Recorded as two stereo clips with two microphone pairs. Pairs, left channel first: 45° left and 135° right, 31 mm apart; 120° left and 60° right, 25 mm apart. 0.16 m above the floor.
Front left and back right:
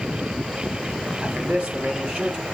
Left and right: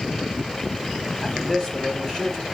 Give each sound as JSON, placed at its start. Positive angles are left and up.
{"t": 1.2, "sound": "a man speaking", "azimuth_deg": -175, "distance_m": 3.5}